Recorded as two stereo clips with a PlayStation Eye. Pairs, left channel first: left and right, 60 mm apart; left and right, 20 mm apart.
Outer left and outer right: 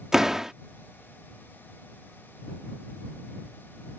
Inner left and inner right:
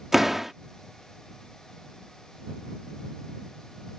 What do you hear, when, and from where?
0.1 s a door slam: 10° right (ahead or behind)